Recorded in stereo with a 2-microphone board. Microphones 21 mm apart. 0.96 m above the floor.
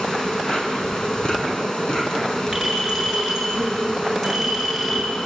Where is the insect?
30° left (ahead or behind), 3.5 m.